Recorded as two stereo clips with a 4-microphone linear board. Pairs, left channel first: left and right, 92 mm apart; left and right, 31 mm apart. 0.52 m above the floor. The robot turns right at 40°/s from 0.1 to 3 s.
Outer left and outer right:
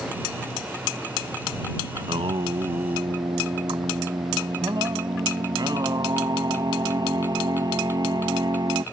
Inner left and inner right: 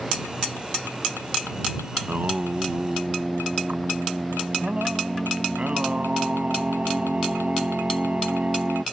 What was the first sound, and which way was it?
Singing, 90° right.